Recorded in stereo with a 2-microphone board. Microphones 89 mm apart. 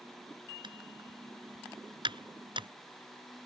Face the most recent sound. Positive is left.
turn(degrees=-65)  # may be behind; listen again after turning